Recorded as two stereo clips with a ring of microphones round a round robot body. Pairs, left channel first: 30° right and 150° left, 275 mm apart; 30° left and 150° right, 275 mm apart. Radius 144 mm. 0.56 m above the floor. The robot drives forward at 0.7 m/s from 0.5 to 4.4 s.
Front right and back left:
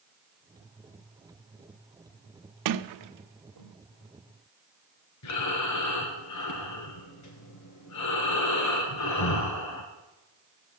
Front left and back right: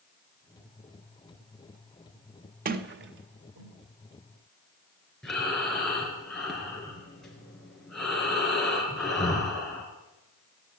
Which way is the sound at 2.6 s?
150° left.